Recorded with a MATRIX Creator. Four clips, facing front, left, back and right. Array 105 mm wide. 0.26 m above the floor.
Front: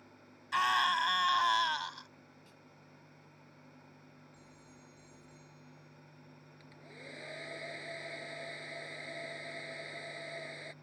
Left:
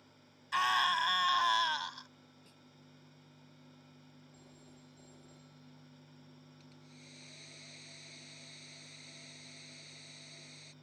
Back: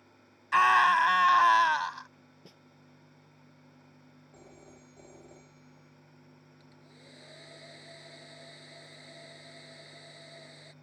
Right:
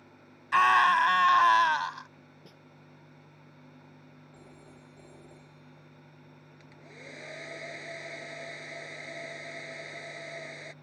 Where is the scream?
135° right.